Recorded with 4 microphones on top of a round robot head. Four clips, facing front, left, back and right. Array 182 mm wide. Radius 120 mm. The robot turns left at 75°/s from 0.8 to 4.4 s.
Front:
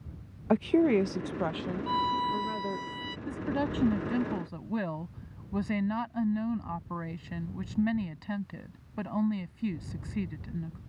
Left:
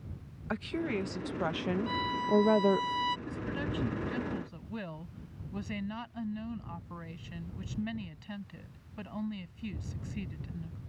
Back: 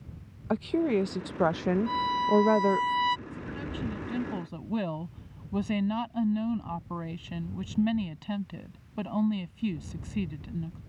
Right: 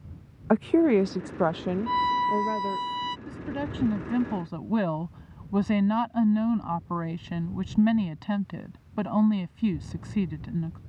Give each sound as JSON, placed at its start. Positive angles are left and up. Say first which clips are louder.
{"t": 0.5, "sound": "a woman speaking", "louder": "right 14 dB, front 3 dB", "azimuth_deg": -75}
{"t": 1.9, "sound": "a violin", "louder": "right 9 dB, front 2 dB", "azimuth_deg": -75}
{"t": 3.3, "sound": "a woman speaking", "louder": "right 3 dB, front 7 dB", "azimuth_deg": -10}